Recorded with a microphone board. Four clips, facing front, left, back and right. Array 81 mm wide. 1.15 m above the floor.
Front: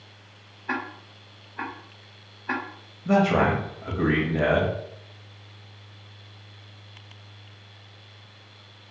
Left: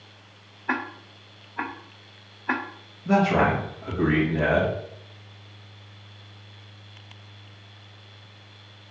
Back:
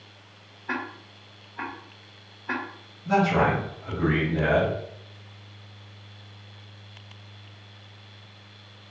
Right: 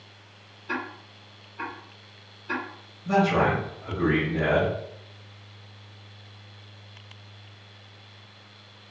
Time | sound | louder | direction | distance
0.7 | ticking | left 4 dB, front 1 dB | 85° left | 0.5 m
3.0 | a man speaking | left 1 dB, front 1 dB | 20° left | 1.4 m